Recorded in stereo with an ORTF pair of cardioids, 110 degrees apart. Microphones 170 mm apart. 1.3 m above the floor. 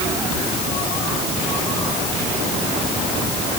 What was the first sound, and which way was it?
Only background noise.